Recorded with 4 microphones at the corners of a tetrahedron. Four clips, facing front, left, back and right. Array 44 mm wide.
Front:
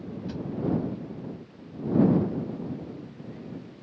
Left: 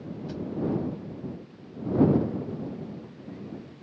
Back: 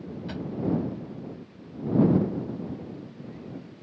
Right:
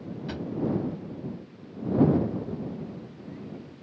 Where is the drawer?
125° right.